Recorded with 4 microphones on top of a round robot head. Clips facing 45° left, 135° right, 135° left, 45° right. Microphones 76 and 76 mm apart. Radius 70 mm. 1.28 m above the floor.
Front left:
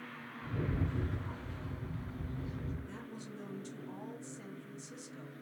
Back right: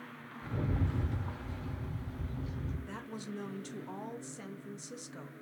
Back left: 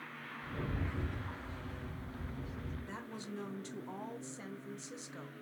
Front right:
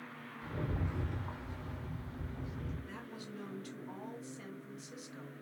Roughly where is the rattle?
Behind right.